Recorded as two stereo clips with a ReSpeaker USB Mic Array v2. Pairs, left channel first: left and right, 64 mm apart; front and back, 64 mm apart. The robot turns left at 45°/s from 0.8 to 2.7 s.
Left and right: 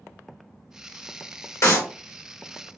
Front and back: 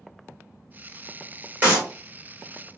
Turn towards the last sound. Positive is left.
turn(degrees=75)